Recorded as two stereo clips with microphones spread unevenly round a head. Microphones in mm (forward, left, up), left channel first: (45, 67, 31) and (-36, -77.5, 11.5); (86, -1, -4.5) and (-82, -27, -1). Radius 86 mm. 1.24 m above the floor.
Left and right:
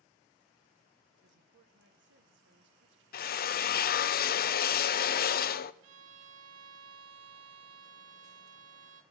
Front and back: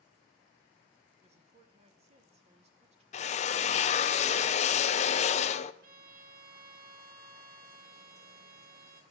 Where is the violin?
140° right, 1.7 m.